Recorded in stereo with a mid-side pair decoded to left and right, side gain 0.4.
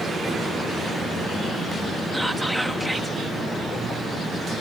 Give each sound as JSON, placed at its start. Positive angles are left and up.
{"t": 2.1, "sound": "whispering", "azimuth_deg": -5}